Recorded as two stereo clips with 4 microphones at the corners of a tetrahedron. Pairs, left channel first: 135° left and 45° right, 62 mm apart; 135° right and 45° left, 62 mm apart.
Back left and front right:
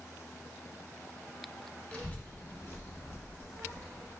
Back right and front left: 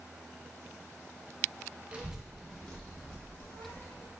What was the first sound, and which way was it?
A child speaking, 100° left.